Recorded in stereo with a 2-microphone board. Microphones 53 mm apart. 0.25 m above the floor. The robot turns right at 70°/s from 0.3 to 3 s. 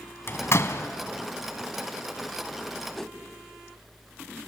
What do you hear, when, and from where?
0.3 s a door slam: 45° left (ahead or behind), 1.2 m; by 0.9 s 55° left (ahead or behind), 1.2 m
3.0 s a whoosh: 5° left (ahead or behind), 0.8 m; by 3.2 s 10° left (ahead or behind), 0.8 m